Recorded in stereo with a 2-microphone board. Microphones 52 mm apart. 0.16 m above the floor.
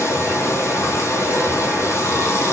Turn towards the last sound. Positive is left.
turn(degrees=65)  # may be behind; listen again after turning